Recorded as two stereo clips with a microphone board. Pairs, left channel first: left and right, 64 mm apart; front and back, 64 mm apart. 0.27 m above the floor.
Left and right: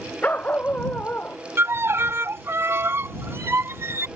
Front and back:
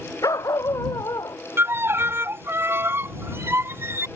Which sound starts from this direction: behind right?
A violin, at 1.6 s.